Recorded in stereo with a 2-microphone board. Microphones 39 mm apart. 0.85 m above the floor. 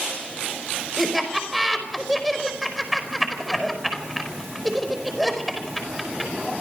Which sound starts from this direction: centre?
Laughter, at 1.0 s.